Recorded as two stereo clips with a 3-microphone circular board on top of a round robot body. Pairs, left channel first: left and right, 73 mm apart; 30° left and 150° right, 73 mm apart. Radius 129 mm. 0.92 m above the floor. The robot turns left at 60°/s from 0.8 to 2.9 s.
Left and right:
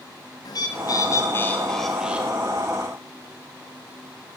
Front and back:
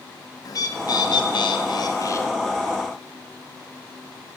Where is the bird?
65° left, 1.8 m; by 2.3 s 25° right, 1.8 m.